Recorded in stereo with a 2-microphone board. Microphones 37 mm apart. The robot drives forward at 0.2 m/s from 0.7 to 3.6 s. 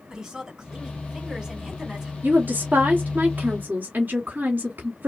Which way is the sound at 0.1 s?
15° right (ahead or behind).